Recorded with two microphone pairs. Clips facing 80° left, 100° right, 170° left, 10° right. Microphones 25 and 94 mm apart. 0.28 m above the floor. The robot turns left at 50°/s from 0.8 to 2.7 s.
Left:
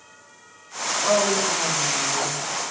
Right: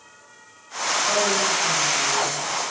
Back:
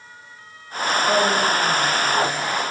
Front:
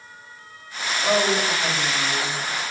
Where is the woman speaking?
80° left, 5 m; by 2.4 s 10° left, 5 m.